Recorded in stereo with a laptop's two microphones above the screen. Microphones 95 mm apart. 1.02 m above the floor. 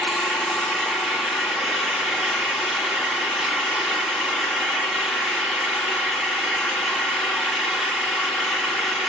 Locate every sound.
0.0 s an engine running: centre (ahead or behind), 2.5 m